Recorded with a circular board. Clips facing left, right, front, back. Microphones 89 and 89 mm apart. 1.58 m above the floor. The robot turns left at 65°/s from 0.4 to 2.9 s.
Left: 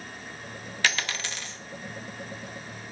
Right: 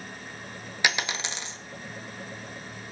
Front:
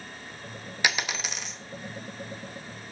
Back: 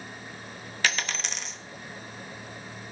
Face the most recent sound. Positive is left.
turn(degrees=180)